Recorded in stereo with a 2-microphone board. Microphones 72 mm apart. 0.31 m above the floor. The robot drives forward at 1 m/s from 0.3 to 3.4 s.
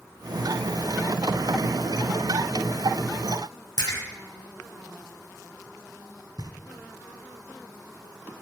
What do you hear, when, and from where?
3.8 s a splash: 50° left (ahead or behind), 4.5 m
6.4 s knocking: 60° right (ahead or behind), 2 m